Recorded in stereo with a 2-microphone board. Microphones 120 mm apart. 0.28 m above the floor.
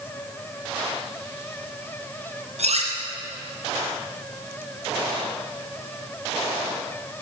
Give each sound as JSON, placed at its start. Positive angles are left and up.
{"t": 2.6, "sound": "cutlery clinking", "side_deg": -75, "distance_m": 1.9}